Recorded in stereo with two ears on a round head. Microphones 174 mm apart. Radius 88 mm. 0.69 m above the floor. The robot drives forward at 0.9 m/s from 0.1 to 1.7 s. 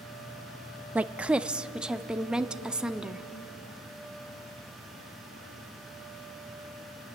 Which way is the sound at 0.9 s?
5° right (ahead or behind).